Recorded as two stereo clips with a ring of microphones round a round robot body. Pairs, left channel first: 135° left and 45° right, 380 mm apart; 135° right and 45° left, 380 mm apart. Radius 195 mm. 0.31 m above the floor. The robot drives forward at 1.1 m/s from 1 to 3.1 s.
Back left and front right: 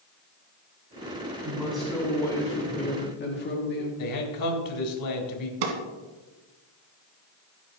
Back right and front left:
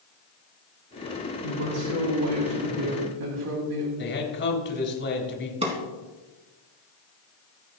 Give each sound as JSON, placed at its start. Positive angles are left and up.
{"t": 1.4, "sound": "a woman speaking", "azimuth_deg": 40, "distance_m": 3.5}
{"t": 4.0, "sound": "a man speaking", "azimuth_deg": 165, "distance_m": 3.5}
{"t": 5.6, "sound": "a drawer", "azimuth_deg": -30, "distance_m": 2.5}